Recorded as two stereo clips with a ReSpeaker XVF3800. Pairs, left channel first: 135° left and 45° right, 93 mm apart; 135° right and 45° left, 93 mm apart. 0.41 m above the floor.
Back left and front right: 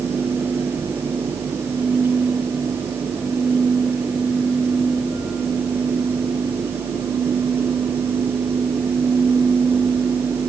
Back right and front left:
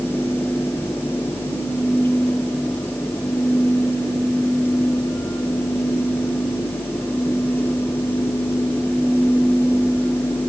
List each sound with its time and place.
Only background noise.